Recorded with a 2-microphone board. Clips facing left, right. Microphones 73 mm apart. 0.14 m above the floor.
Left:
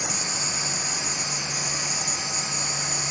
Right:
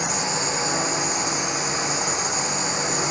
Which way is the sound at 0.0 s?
80° right.